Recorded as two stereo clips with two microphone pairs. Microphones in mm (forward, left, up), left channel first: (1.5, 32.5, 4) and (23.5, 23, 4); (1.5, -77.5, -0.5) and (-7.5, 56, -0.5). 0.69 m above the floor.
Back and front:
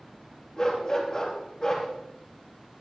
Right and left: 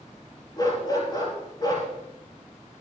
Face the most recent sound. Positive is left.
turn(degrees=-145)